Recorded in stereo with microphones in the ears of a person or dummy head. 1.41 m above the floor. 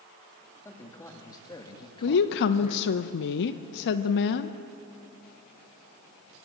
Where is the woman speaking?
60° left (ahead or behind), 0.8 m.